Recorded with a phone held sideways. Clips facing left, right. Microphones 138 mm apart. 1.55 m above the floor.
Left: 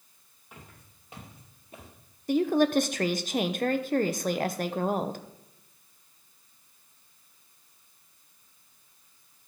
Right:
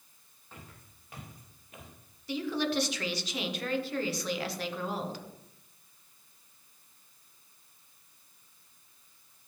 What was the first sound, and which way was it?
Footsteps, 15° left (ahead or behind).